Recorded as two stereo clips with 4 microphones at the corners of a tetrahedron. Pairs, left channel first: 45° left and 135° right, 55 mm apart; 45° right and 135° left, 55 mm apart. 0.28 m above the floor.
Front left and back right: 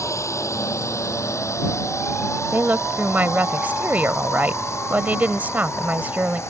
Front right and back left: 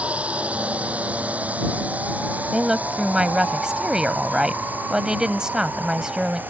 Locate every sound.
0.0 s a drone: 70° left; by 6.5 s 80° left
2.5 s a woman speaking: 155° right